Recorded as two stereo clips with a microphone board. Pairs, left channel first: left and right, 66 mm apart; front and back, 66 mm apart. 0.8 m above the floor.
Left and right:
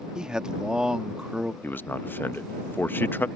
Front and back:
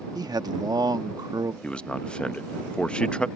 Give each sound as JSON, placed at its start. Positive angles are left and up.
{"t": 0.1, "sound": "a man speaking", "azimuth_deg": -165}
{"t": 1.6, "sound": "a man speaking", "azimuth_deg": 60}